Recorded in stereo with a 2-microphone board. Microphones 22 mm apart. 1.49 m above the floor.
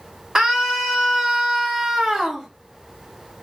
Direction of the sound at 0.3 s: 35° right (ahead or behind).